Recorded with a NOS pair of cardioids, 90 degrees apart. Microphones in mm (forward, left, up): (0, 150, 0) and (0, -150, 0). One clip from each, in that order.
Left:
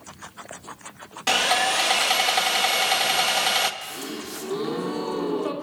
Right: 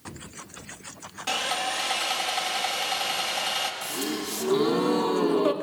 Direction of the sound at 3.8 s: 30° right.